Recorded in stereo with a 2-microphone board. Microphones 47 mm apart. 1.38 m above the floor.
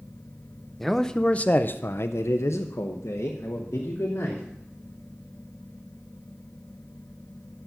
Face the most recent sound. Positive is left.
turn(degrees=60)  # may be behind; listen again after turning